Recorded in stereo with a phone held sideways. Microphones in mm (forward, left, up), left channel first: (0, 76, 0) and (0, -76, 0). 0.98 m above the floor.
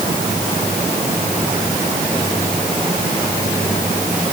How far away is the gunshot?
I don't hear a gunshot.